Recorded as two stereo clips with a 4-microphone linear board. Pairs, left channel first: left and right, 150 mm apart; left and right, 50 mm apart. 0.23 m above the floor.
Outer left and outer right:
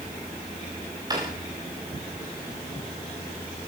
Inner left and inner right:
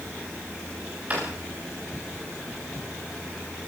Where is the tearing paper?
No tearing paper in this recording.